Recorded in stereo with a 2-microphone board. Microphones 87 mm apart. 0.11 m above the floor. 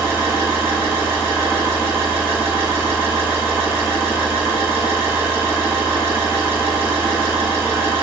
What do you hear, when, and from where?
0.0 s an engine running: 25° right (ahead or behind), 0.9 m